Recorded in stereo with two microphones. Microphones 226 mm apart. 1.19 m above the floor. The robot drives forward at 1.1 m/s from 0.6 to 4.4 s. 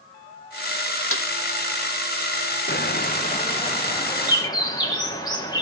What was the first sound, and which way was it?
A snare drum, 70° left (ahead or behind).